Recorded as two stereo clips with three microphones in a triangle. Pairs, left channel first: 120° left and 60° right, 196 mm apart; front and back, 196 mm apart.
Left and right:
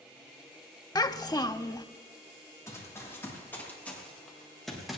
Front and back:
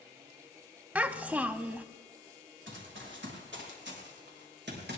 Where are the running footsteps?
165° right, 6 m; by 5.0 s 150° right, 5 m.